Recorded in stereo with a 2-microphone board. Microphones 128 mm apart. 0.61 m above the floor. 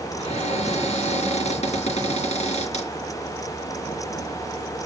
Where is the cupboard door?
60° left (ahead or behind), 2.5 m.